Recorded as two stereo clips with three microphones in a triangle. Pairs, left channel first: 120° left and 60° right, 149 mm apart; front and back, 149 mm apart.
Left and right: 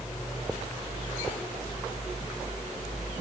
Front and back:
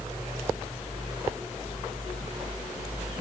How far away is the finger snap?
No finger snap in this recording.